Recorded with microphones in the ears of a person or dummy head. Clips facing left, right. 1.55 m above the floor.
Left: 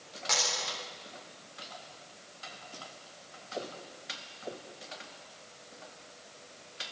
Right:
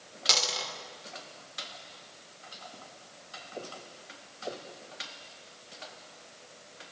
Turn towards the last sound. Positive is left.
turn(degrees=-45)  # may be behind; listen again after turning